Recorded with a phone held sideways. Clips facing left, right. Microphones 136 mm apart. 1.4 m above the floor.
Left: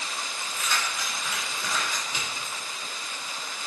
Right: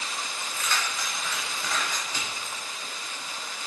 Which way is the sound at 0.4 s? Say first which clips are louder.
Even; 10° left (ahead or behind).